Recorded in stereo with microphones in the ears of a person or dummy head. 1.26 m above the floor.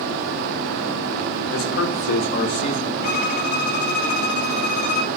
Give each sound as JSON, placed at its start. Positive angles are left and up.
{"t": 1.5, "sound": "a man speaking", "side_deg": 70, "distance_m": 1.7}
{"t": 3.0, "sound": "a violin", "side_deg": 50, "distance_m": 1.3}